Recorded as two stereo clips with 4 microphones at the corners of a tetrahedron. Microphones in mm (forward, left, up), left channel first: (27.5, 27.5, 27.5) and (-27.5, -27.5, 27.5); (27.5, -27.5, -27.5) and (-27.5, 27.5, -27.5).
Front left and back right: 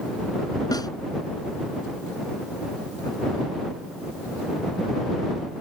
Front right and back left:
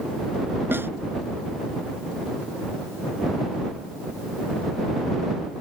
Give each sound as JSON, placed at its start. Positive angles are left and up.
{"t": 0.7, "sound": "a snare drum", "azimuth_deg": 75}